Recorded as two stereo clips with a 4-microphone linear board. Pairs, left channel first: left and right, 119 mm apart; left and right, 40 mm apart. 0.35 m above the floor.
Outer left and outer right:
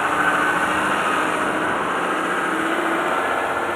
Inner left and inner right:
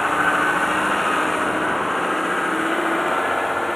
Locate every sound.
0.0 s a vehicle: centre (ahead or behind)